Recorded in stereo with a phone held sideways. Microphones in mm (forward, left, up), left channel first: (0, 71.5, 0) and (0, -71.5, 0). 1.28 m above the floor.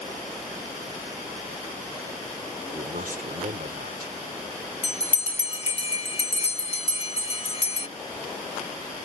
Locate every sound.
2.7 s a man speaking: 80° right
4.8 s a bell: 45° left (ahead or behind)